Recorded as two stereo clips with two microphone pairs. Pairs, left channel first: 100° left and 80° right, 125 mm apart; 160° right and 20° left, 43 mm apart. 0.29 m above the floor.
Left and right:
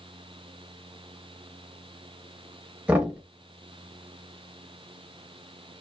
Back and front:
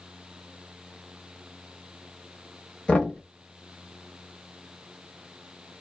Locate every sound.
2.9 s knocking: 145° right, 1.1 m